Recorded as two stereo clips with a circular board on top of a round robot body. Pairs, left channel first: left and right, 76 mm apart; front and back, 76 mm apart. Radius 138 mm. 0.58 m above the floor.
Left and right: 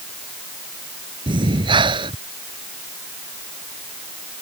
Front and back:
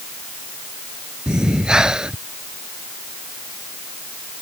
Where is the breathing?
100° right.